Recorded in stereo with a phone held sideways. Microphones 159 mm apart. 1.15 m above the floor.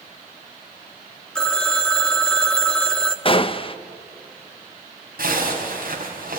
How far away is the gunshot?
About 0.8 m.